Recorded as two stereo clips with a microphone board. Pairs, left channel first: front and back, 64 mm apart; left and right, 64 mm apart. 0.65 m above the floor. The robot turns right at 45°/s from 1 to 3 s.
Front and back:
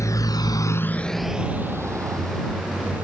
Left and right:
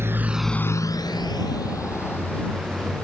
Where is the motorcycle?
40° right; by 3.0 s 170° right.